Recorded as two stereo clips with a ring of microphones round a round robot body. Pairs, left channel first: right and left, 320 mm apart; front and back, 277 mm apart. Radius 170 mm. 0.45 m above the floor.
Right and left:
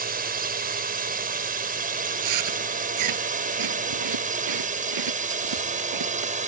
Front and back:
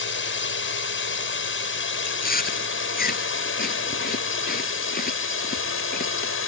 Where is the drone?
35° left; by 6.5 s 25° left.